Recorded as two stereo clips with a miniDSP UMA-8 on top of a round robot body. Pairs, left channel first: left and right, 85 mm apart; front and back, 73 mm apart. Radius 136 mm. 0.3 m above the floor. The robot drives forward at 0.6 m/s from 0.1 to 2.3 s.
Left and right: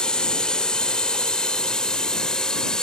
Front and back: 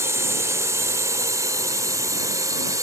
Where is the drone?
165° left; by 2.8 s 170° left.